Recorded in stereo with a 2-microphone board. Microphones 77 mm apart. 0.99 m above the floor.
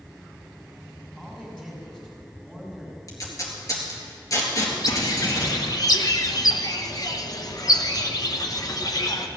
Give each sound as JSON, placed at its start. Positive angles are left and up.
{"t": 1.2, "sound": "a man speaking", "side_deg": 10, "distance_m": 6.5}
{"t": 3.1, "sound": "tape being pulled", "side_deg": 45, "distance_m": 3.5}
{"t": 4.8, "sound": "a bird", "side_deg": 50, "distance_m": 1.0}